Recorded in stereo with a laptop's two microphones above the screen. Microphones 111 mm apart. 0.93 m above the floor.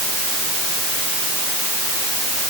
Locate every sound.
Only background noise.